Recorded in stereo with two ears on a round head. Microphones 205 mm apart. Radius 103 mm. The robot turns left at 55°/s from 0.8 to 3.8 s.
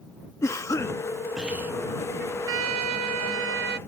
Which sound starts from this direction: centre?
A cough, at 0.4 s.